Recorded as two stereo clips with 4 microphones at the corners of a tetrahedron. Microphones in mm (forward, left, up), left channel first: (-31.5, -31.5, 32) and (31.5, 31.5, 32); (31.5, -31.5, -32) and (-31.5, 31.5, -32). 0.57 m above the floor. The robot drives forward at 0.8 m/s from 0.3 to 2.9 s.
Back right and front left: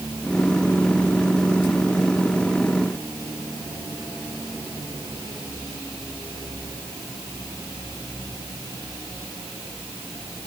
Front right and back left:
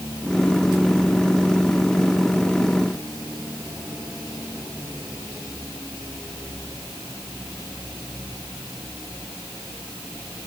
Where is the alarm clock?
No alarm clock in this recording.